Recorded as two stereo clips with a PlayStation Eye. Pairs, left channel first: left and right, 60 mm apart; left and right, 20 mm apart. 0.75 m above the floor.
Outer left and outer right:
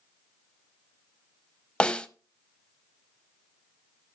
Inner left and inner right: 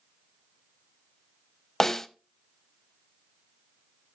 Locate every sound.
1.8 s a snare drum: 15° left (ahead or behind), 0.5 m